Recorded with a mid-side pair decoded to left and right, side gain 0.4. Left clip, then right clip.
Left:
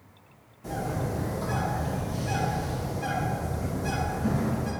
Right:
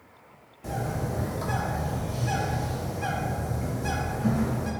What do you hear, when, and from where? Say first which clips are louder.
0.6 s a bird: even; 50° right, 0.8 m